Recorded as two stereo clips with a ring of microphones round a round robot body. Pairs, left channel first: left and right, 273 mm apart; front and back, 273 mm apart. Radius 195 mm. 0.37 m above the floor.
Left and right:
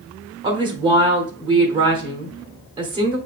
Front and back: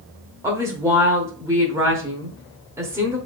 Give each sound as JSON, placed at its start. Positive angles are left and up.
{"t": 0.4, "sound": "a woman speaking", "azimuth_deg": -120, "distance_m": 1.0}